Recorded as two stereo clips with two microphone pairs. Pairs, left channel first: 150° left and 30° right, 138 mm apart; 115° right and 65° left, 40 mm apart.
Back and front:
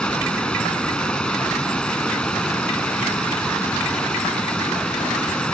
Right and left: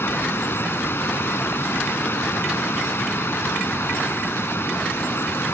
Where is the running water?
125° right.